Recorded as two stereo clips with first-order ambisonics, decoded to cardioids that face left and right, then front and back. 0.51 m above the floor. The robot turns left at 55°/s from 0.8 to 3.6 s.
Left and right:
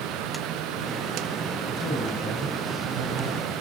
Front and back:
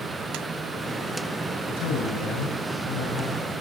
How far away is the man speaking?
About 4.5 m.